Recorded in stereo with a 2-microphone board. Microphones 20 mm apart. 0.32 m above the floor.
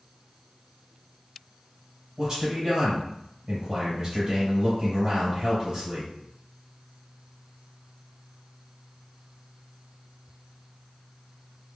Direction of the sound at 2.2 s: 20° right (ahead or behind).